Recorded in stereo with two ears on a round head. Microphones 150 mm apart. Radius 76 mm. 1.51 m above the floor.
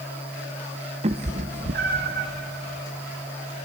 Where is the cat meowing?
35° right (ahead or behind), 0.8 m; by 2.3 s 60° right (ahead or behind), 1.4 m.